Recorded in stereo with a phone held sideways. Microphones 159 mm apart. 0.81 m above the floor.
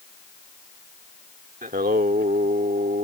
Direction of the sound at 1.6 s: 65° right (ahead or behind).